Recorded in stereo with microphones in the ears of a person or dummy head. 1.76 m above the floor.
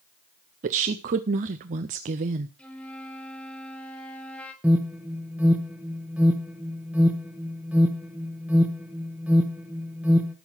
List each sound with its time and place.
0.6 s a woman speaking: 30° right (ahead or behind), 0.5 m
2.6 s a flute: 5° left (ahead or behind), 1.3 m
4.6 s an alarm: 5° right (ahead or behind), 0.9 m